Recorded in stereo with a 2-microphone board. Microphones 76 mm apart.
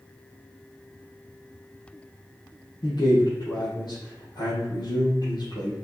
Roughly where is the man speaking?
Left.